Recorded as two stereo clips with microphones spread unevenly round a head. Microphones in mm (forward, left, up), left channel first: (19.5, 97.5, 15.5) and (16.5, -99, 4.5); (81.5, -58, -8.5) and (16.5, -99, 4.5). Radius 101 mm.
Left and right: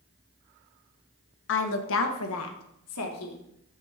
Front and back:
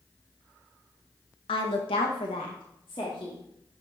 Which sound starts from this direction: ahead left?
A woman speaking, at 1.5 s.